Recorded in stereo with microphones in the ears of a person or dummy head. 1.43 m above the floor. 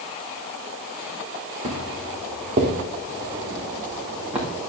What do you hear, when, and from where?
1.6 s footsteps: 45° right (ahead or behind), 4 m; by 4.5 s 5° right (ahead or behind), 3.5 m